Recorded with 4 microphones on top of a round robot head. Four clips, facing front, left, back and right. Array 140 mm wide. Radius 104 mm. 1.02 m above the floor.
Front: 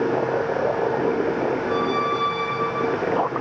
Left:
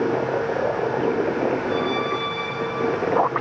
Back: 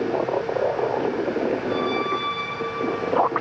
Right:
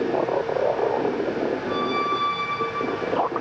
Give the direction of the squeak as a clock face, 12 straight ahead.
1 o'clock.